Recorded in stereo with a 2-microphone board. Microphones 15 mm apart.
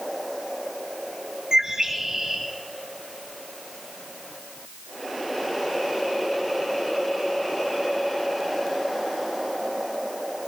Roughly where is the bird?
Right.